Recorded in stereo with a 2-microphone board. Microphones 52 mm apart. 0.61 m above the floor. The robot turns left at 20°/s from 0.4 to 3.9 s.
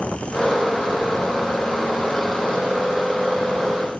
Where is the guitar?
I don't hear a guitar.